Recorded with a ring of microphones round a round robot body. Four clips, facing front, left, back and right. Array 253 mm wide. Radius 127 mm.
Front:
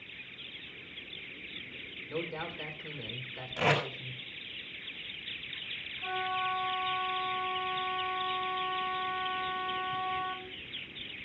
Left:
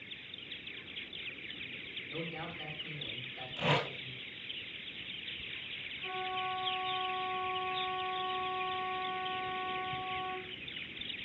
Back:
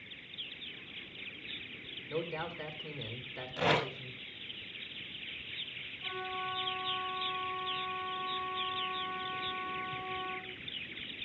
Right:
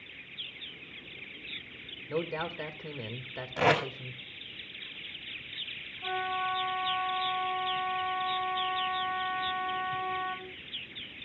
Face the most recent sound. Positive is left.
turn(degrees=-60)